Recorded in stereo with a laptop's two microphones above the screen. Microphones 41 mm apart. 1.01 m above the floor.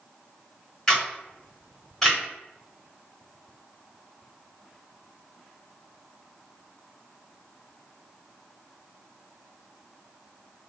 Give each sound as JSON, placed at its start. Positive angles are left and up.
{"t": 0.9, "sound": "a camera shutter", "side_deg": 15, "distance_m": 1.4}